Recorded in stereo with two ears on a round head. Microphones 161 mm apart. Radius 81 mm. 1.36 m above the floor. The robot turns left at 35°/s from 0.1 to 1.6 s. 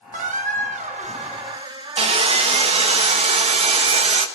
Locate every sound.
0.1 s a squeak: 90° right, 1.0 m; by 3.0 s 140° right, 1.0 m
2.0 s sawing: 35° right (ahead or behind), 1.2 m